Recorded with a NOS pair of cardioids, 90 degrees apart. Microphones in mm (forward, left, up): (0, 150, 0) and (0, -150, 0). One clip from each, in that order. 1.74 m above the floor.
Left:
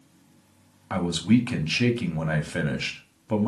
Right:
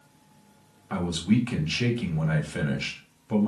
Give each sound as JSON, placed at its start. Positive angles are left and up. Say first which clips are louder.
{"t": 0.9, "sound": "a man speaking", "louder": "left 3 dB", "azimuth_deg": 25, "distance_m": 1.2}